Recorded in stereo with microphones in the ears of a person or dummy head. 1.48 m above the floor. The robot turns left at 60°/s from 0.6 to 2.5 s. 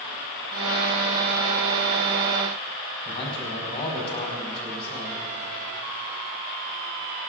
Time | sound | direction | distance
3.0 | a man speaking | 30° left (ahead or behind) | 4.5 m